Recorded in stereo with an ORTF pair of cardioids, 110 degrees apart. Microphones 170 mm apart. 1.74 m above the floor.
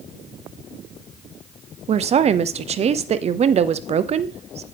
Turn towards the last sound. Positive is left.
turn(degrees=-40)